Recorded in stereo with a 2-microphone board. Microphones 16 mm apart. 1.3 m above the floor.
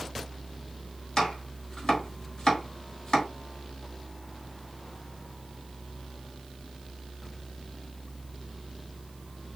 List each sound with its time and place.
1.2 s chopping: 45° left (ahead or behind), 3 m